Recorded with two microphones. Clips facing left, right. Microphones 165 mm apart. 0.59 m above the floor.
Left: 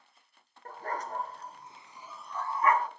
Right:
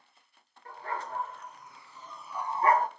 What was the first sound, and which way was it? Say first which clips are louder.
A dog barking: left 1 dB; 45° left (ahead or behind).